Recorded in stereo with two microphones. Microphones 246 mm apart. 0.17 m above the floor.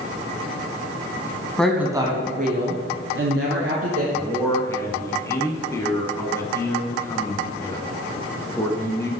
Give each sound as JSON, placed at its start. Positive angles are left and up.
{"t": 1.6, "sound": "a woman speaking", "side_deg": 5, "distance_m": 1.0}
{"t": 4.1, "sound": "a man speaking", "side_deg": 10, "distance_m": 1.2}